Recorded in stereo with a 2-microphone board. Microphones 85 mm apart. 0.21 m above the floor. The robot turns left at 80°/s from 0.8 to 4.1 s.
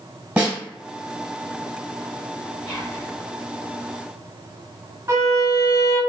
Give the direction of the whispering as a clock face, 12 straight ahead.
12 o'clock.